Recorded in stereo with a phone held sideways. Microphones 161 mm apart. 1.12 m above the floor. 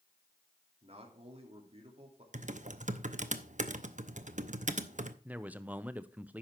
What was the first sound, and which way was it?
A man speaking, 40° right (ahead or behind).